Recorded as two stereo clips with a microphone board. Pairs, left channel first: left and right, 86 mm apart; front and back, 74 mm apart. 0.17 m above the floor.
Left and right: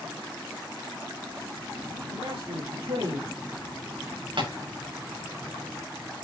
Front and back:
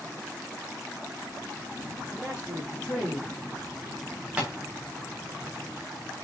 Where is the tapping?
105° right, 8 m.